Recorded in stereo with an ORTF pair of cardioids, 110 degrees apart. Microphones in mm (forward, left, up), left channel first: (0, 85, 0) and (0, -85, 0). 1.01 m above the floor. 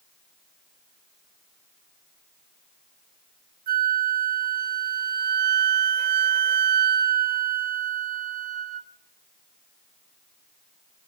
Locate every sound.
3.7 s a flute: 60° right, 0.9 m